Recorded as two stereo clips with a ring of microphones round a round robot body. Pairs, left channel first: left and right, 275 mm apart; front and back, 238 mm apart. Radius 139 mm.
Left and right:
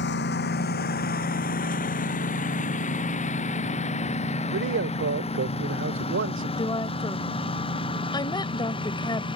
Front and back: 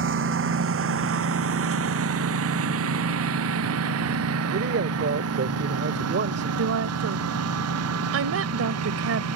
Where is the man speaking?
135° right.